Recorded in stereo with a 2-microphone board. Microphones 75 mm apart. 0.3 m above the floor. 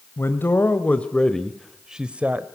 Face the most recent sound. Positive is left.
turn(degrees=-20)  # may be behind; listen again after turning